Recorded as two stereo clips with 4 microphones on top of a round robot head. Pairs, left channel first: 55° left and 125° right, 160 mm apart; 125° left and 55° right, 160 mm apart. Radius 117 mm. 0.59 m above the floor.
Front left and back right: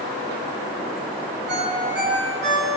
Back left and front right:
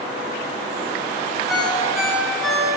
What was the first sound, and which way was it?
A ringtone, 140° right.